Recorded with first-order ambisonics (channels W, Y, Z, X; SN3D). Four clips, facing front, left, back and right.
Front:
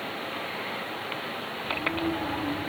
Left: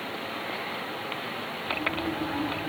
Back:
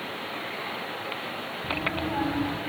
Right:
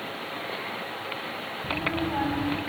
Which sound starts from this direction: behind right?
A child speaking, at 1.6 s.